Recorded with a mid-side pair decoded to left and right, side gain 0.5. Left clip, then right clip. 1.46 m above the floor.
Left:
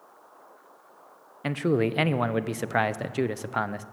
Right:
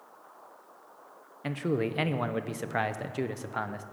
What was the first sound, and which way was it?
A man speaking, 30° left.